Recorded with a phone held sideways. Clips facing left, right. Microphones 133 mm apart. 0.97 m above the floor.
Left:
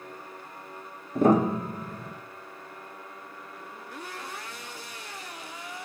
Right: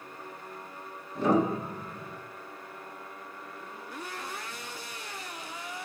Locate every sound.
1.1 s a piano: 50° left (ahead or behind), 0.8 m